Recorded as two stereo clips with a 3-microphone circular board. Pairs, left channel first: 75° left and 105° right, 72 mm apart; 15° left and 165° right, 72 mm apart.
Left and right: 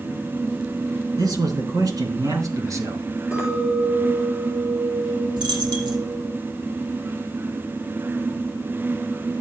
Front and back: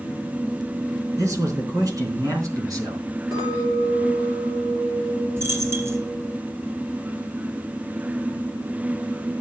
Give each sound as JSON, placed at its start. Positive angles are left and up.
{"t": 1.2, "sound": "a man speaking", "azimuth_deg": -125, "distance_m": 4.5}
{"t": 3.3, "sound": "a clink", "azimuth_deg": 180, "distance_m": 4.5}
{"t": 5.4, "sound": "a dropped coin", "azimuth_deg": -110, "distance_m": 3.0}